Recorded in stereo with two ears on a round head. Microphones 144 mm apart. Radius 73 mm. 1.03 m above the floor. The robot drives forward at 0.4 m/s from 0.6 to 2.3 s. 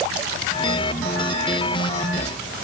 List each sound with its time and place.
Only background noise.